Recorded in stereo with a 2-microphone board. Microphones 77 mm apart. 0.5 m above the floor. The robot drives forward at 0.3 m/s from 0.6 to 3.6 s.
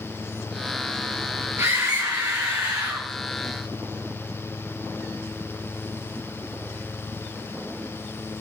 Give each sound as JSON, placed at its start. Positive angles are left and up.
{"t": 1.6, "sound": "a scream", "side_deg": -35, "distance_m": 9.0}